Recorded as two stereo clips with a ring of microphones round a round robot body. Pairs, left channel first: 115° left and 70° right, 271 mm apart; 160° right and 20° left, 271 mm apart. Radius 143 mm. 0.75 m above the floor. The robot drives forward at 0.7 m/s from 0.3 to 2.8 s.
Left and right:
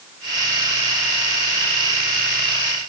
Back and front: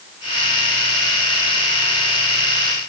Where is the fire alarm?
No fire alarm in this recording.